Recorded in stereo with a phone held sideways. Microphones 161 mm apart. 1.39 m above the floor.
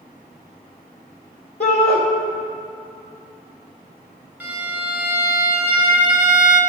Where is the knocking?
I don't hear knocking.